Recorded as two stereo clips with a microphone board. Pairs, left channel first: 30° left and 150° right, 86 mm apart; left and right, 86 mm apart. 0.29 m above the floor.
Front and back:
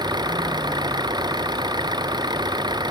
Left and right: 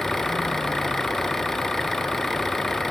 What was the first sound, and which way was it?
An engine running, 175° left.